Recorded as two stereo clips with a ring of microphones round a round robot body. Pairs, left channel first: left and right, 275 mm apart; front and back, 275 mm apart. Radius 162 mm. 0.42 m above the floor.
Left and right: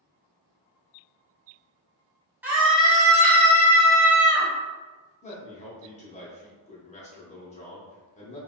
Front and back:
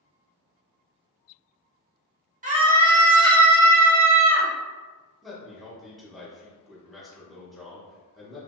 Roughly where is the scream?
Behind.